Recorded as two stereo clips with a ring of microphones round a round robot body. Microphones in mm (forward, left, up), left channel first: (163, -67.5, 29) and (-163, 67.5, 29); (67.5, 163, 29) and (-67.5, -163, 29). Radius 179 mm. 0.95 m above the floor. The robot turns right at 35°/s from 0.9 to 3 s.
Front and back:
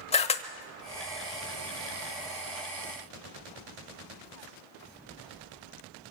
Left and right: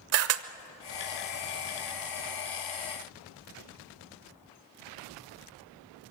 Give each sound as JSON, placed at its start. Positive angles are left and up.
{"t": 0.1, "sound": "a camera shutter", "azimuth_deg": -90, "distance_m": 0.8}